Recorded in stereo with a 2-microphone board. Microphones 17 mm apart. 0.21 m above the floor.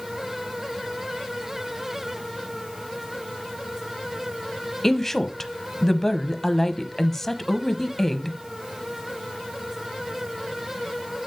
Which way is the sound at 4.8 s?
15° left (ahead or behind).